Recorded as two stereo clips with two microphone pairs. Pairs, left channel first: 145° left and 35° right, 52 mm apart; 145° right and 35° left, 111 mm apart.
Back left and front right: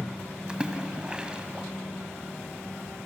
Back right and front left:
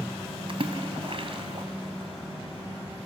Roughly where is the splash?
Ahead left.